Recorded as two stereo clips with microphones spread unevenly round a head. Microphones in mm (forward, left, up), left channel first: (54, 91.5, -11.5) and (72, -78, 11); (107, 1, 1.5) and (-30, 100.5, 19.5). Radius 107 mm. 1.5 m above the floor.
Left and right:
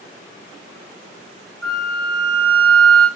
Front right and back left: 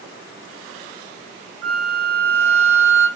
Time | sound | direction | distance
1.6 | a flute | 175° right | 0.9 m